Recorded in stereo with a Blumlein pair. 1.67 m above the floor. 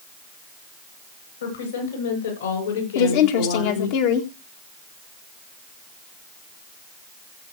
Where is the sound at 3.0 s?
45° left, 1.8 m.